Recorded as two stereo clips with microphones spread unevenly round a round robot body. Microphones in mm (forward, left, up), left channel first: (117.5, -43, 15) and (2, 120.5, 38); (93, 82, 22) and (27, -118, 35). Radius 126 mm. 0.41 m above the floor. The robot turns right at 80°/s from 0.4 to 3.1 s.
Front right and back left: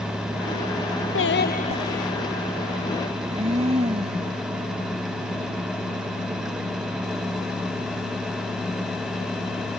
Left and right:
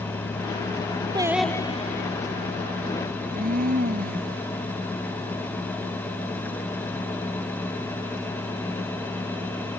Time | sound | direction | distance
1.1 | singing | 40° right | ?
3.1 | a blender | 165° right | ?